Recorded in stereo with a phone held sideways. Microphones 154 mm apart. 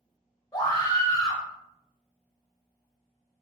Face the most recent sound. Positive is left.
turn(degrees=25)  # may be behind; listen again after turning